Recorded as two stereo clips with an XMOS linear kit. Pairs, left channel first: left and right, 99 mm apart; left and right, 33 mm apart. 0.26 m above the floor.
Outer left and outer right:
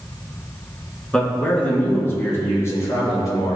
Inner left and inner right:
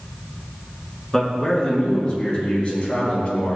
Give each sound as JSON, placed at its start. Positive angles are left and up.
{"t": 1.1, "sound": "a man speaking", "side_deg": 10, "distance_m": 3.5}